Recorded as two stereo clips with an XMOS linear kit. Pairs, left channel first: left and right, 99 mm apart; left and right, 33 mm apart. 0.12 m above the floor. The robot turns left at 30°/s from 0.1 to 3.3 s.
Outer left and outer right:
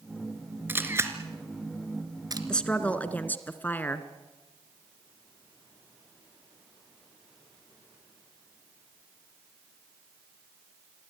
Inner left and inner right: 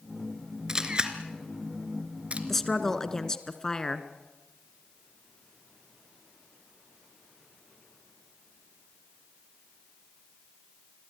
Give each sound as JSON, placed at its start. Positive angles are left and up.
{"t": 0.7, "sound": "a camera shutter", "side_deg": -20, "distance_m": 2.0}
{"t": 2.5, "sound": "a woman speaking", "side_deg": 10, "distance_m": 1.6}